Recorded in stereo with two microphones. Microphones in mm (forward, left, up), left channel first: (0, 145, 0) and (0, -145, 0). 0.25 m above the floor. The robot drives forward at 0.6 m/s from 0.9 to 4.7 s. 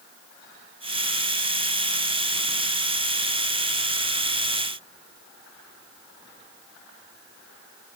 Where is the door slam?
No door slam in this recording.